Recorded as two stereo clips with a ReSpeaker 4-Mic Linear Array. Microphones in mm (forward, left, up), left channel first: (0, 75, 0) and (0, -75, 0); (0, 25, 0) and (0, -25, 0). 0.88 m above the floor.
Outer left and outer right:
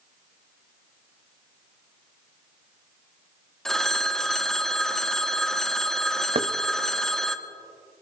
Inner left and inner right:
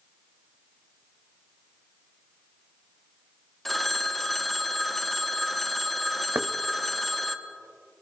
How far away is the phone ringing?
About 0.7 m.